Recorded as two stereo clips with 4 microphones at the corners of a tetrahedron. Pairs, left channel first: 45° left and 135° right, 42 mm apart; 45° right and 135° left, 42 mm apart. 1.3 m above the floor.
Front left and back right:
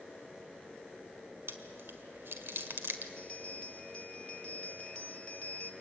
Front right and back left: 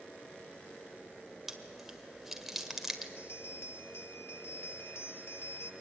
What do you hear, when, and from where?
1.5 s chewing: 140° right, 1.6 m
3.2 s a bell: 20° right, 0.9 m